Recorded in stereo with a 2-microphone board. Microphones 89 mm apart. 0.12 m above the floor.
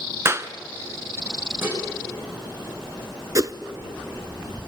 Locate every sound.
0.2 s a clap: 30° right (ahead or behind), 1.0 m
1.6 s dishes clattering: 25° right (ahead or behind), 7 m
3.4 s a whoosh: 40° right (ahead or behind), 0.8 m